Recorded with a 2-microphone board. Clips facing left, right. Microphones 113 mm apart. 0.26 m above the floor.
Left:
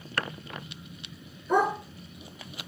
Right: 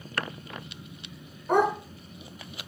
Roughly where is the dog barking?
Right.